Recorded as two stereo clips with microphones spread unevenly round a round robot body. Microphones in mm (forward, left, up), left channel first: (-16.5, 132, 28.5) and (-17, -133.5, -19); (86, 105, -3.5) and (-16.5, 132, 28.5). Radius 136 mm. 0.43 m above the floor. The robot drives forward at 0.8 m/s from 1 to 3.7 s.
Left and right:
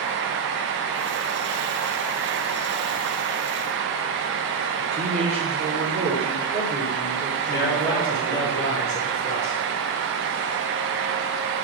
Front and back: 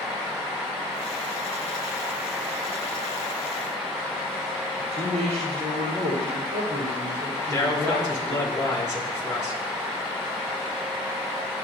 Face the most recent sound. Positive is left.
turn(degrees=45)